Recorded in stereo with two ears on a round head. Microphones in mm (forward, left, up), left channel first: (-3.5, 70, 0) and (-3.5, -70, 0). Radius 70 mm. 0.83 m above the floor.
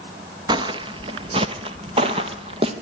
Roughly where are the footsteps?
Right.